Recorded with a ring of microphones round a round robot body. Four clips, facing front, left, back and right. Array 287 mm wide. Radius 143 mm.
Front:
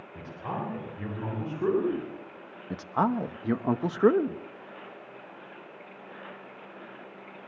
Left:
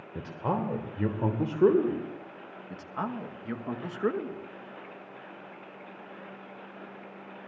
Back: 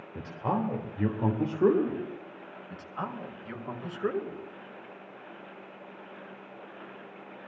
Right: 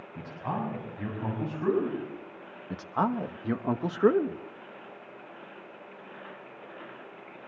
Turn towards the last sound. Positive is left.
turn(degrees=-30)